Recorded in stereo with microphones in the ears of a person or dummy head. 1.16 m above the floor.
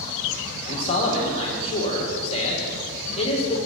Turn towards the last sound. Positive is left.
turn(degrees=25)  # may be behind; listen again after turning